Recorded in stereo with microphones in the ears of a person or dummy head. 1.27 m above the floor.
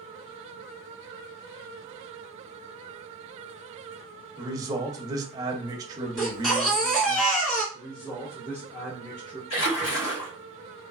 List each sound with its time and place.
4.4 s a man speaking: 25° right (ahead or behind), 0.6 m
6.2 s a baby crying: 5° left (ahead or behind), 1.3 m
7.7 s a man speaking: 10° left (ahead or behind), 0.7 m
9.5 s a splash: 75° left (ahead or behind), 1.5 m